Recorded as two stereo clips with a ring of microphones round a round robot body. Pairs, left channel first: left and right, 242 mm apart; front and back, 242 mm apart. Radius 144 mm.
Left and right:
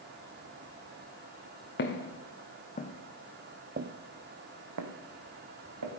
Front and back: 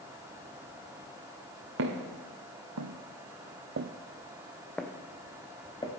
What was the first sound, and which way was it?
Footsteps, 135° left.